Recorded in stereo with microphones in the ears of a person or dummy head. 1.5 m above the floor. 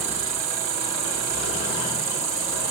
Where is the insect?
30° right (ahead or behind).